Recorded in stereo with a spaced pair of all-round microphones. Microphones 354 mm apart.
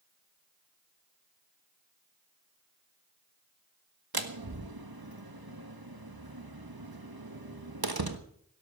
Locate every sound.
4.1 s a door slam: 85° right, 1.4 m